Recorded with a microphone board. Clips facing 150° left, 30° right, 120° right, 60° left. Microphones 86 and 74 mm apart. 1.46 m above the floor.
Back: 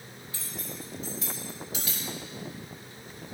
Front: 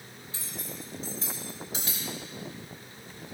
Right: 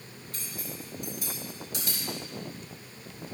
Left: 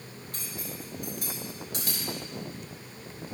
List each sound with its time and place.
0.3 s cutlery clinking: 25° left, 3.5 m